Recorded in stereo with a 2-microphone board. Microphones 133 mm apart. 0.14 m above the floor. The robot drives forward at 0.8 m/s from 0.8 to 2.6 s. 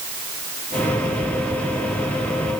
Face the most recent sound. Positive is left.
No sound to turn to.